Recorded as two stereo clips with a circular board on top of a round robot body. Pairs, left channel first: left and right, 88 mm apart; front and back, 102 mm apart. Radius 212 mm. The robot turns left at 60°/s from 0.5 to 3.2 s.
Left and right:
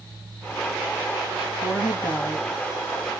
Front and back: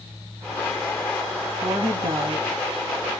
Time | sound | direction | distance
1.6 | a woman speaking | 165° right | 1.3 m